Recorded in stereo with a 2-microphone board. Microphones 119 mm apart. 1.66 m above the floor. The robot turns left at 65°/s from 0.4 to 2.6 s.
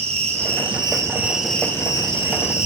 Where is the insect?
110° right, 2 m; by 2.7 s 105° left, 2 m.